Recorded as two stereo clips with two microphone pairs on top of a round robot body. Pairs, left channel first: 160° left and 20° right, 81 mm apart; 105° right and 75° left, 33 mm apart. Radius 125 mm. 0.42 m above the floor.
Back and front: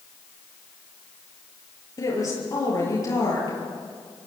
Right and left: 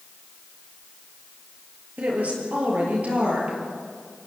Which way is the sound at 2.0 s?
110° left.